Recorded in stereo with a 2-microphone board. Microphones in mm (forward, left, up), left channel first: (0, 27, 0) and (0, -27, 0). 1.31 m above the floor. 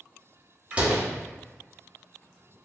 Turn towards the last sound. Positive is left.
turn(degrees=-20)  # may be behind; listen again after turning